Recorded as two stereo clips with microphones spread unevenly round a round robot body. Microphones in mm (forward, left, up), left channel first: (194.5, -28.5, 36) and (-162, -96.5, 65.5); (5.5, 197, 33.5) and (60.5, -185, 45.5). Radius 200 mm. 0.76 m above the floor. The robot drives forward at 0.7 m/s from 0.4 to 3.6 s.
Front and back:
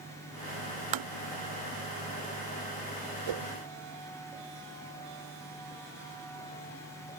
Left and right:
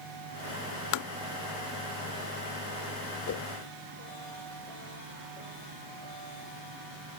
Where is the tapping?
145° left; by 1.1 s 150° left.